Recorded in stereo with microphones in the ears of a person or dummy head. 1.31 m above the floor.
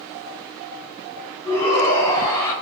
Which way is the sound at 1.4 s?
15° left (ahead or behind).